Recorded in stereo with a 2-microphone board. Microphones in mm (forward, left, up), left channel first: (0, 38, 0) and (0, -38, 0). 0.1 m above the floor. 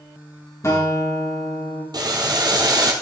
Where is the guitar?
35° left (ahead or behind), 4 m.